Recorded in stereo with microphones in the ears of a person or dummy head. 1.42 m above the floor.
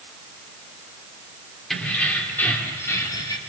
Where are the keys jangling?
5° left (ahead or behind), 3.5 m; by 3.4 s 25° left (ahead or behind), 3 m.